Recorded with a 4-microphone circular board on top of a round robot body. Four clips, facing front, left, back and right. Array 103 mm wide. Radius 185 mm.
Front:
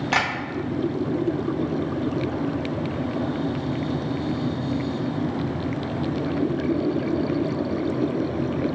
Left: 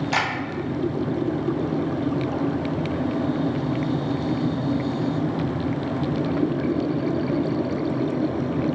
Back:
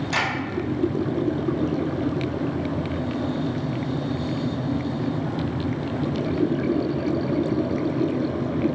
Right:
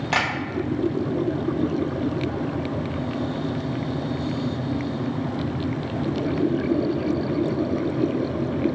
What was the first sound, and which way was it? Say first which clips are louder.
Tapping: right 1 dB, front 3 dB; 35° right.